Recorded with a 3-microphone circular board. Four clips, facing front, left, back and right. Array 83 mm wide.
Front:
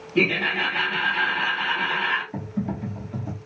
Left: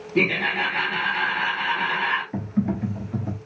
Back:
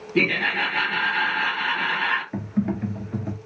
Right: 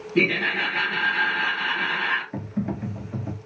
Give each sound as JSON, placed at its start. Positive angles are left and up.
{"t": 0.1, "sound": "laughter", "azimuth_deg": 170, "distance_m": 2.5}
{"t": 2.3, "sound": "typing on a keyboard", "azimuth_deg": 175, "distance_m": 1.3}